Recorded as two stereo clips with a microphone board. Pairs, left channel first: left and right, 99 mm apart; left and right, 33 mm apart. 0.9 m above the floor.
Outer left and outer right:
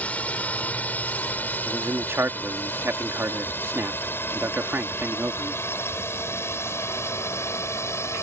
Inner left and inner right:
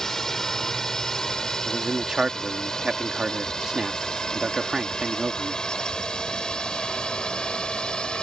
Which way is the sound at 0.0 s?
15° left (ahead or behind).